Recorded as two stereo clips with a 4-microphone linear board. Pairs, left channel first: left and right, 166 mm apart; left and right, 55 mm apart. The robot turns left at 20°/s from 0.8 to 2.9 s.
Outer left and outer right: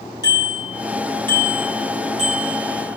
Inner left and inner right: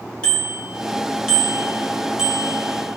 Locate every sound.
0.2 s a bicycle bell: 20° left (ahead or behind), 7 m; by 3.0 s 20° right (ahead or behind), 7 m